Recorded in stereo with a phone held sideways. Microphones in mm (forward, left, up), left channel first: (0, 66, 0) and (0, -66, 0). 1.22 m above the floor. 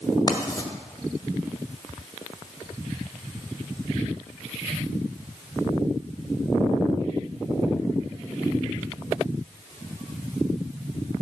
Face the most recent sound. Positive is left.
turn(degrees=30)  # may be behind; listen again after turning